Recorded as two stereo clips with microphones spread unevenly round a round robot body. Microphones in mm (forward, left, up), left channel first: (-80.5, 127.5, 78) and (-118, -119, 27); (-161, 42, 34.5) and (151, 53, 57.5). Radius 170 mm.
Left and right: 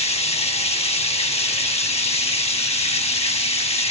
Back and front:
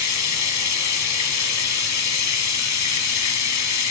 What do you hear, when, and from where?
0.0 s running water: 150° left, 1.4 m